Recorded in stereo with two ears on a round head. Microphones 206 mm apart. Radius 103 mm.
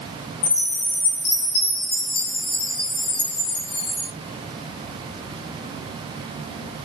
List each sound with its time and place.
0.4 s a chime: 65° left (ahead or behind), 1.5 m